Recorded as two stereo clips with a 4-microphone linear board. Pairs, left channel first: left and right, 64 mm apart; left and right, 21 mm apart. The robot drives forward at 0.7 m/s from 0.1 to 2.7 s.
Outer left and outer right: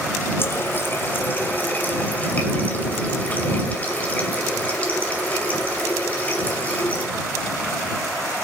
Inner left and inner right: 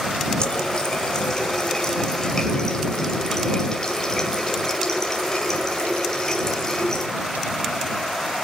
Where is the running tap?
40° left (ahead or behind), 2.5 m; by 7.1 s 25° left (ahead or behind), 4 m.